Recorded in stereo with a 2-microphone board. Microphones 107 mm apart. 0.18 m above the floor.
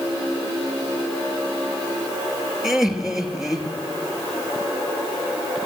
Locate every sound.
2.6 s laughter: 5° right (ahead or behind), 3 m